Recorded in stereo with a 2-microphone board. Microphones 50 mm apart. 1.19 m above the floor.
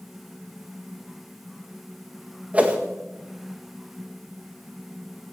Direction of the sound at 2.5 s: 25° right (ahead or behind).